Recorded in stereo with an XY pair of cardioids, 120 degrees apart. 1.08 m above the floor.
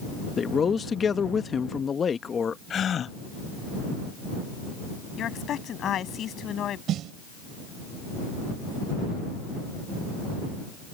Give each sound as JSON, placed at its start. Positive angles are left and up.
{"t": 0.4, "sound": "a man speaking", "azimuth_deg": 35}
{"t": 2.7, "sound": "a gasp", "azimuth_deg": 45}
{"t": 5.2, "sound": "a woman speaking", "azimuth_deg": 55}
{"t": 6.9, "sound": "a snare drum", "azimuth_deg": -65}